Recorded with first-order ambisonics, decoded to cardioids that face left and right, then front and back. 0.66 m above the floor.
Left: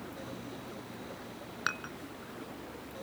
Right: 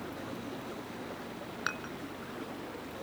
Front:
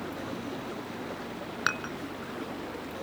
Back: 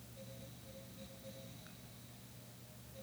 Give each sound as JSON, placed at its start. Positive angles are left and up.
{"t": 0.0, "sound": "running water", "azimuth_deg": -10}
{"t": 1.7, "sound": "dishes clattering", "azimuth_deg": 5}